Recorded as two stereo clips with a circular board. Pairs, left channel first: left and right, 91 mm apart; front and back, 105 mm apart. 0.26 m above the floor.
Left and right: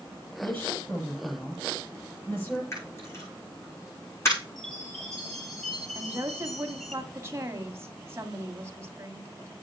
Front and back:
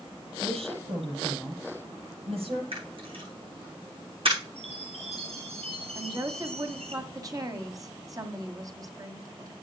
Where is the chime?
175° left, 4 m.